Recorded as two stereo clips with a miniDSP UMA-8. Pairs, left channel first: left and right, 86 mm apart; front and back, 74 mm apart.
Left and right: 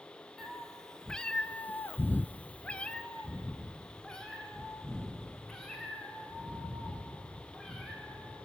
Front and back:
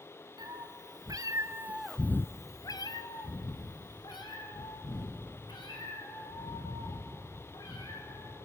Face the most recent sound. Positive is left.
turn(degrees=5)